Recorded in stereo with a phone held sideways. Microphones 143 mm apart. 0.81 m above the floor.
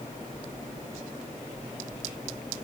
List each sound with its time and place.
Only background noise.